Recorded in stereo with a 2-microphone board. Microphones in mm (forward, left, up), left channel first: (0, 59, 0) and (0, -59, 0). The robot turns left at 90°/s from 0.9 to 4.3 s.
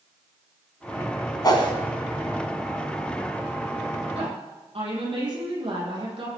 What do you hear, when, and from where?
1.4 s a whoosh: 35° left (ahead or behind), 2 m; by 1.7 s 45° left (ahead or behind), 2 m
4.1 s a woman speaking: 70° right (ahead or behind), 7 m; by 6.4 s 55° right (ahead or behind), 7 m